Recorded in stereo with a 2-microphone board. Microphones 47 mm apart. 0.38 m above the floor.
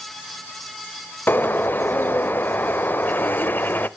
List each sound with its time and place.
1.3 s a bird: 45° left (ahead or behind), 0.7 m